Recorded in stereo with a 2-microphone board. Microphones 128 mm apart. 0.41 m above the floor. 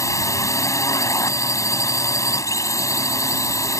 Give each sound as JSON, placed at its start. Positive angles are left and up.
{"t": 0.0, "sound": "a drone", "side_deg": 25}